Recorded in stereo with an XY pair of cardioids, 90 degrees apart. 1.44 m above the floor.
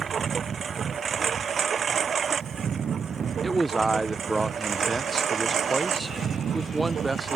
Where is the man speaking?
15° right.